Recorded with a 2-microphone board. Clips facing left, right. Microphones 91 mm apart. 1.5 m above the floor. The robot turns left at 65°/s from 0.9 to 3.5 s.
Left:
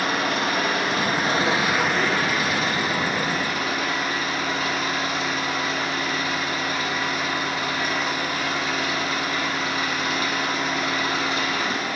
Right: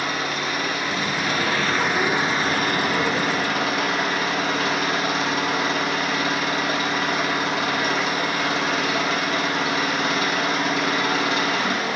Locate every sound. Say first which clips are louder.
0.0 s an engine running: left 2 dB; 65° left, 2 m; by 12.0 s 105° right, 2 m